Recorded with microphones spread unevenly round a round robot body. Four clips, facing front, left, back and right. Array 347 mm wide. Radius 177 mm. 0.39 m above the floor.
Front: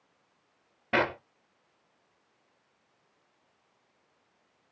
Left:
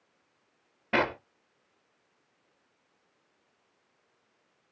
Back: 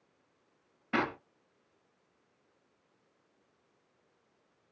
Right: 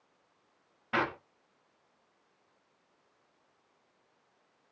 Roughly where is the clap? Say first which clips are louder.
Left 4 dB, front 4 dB; ahead left.